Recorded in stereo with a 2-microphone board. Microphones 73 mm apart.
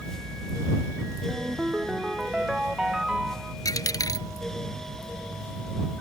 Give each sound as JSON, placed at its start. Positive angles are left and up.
{"t": 1.3, "sound": "a ringtone", "side_deg": -10}
{"t": 3.6, "sound": "a dropped coin", "side_deg": 60}